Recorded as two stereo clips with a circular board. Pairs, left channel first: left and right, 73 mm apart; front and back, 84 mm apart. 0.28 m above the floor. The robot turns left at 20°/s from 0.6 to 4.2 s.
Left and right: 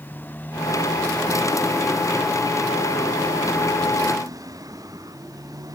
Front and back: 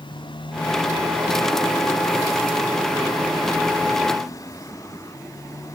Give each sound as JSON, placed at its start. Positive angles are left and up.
{"t": 0.0, "sound": "a motorcycle", "azimuth_deg": 25}